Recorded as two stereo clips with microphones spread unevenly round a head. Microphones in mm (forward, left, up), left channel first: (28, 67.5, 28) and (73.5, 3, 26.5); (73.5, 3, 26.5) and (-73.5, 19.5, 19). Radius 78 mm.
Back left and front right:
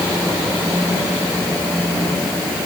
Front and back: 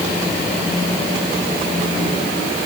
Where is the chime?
I don't hear a chime.